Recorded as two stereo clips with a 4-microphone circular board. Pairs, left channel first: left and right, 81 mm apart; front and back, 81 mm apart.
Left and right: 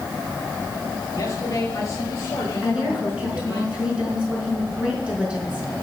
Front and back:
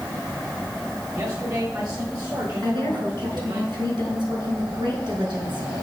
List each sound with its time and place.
1.1 s a man speaking: 140° left, 7.5 m; by 3.6 s 145° left, 8.5 m
2.6 s a woman speaking: 165° right, 5 m